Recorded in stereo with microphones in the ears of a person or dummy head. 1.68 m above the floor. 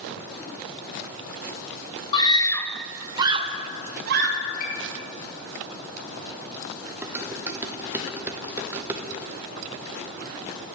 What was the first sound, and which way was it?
A scream, 30° left (ahead or behind).